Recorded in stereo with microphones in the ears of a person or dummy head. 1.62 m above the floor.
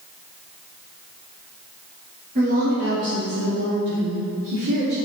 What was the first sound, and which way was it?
A woman speaking, 40° right (ahead or behind).